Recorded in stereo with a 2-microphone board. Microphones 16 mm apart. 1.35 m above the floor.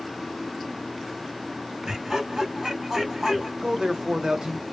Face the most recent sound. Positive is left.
turn(degrees=-55)  # may be behind; listen again after turning